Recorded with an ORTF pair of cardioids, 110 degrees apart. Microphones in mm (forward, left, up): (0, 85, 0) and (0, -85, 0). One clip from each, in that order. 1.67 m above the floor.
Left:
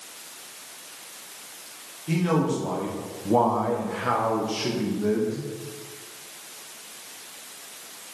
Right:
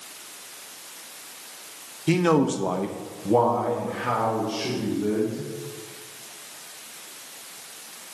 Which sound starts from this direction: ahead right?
A man speaking, at 2.1 s.